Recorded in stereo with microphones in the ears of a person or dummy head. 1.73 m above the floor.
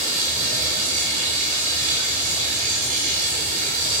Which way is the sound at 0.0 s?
40° right (ahead or behind).